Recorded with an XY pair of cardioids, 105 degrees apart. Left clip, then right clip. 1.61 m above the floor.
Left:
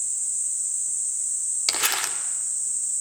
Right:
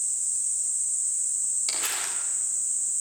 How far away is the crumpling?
About 3 m.